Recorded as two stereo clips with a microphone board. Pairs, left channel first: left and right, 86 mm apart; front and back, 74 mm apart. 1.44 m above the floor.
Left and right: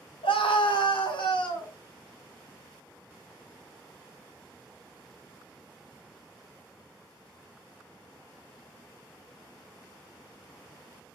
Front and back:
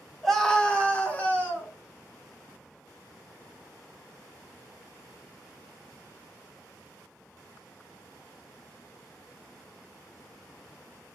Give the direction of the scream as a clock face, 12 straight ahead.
9 o'clock.